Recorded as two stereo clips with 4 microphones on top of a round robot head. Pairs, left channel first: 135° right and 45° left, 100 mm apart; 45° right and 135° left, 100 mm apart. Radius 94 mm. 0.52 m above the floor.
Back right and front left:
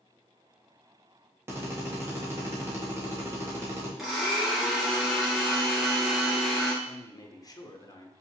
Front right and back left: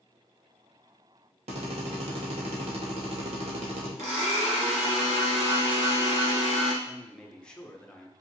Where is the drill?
115° left, 1.1 m.